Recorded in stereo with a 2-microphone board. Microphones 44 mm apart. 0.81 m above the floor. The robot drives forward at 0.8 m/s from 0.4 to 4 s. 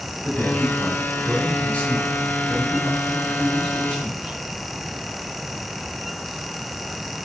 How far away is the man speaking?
About 2.5 m.